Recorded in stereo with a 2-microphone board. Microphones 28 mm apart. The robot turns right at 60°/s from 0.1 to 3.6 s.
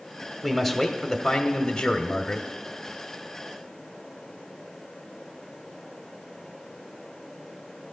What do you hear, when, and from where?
0.4 s a man speaking: 5° right (ahead or behind), 1.0 m; by 2.5 s 20° left (ahead or behind), 1.0 m